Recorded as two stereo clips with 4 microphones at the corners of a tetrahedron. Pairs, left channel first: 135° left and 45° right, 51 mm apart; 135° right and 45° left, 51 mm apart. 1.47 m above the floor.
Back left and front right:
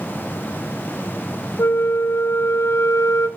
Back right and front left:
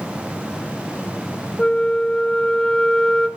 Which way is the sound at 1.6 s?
150° left.